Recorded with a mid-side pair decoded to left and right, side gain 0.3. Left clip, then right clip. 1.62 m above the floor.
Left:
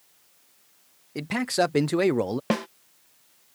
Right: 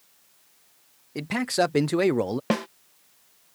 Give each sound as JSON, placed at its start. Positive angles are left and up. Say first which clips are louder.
{"t": 1.1, "sound": "a man speaking", "louder": "even", "azimuth_deg": 0}
{"t": 2.5, "sound": "a snare drum", "louder": "right 1 dB", "azimuth_deg": -5}